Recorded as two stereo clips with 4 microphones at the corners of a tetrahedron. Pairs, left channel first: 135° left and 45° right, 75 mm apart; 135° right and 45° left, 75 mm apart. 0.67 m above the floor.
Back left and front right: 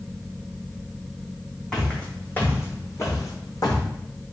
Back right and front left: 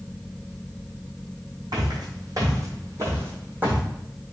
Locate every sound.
1.7 s footsteps: 55° left, 1.3 m; by 3.8 s 115° left, 1.4 m